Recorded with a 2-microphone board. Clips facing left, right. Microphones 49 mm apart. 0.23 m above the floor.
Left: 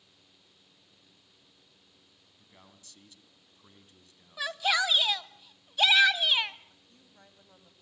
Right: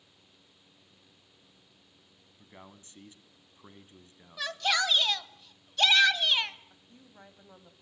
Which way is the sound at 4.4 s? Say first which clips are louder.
Left 1 dB; 5° left (ahead or behind).